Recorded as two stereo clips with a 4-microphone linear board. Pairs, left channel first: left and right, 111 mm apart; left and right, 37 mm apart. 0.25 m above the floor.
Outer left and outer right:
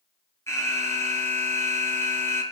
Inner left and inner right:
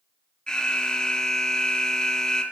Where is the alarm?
25° left (ahead or behind), 4 m.